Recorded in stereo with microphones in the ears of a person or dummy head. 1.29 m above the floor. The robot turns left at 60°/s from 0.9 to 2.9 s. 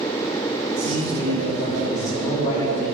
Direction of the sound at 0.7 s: 115° right.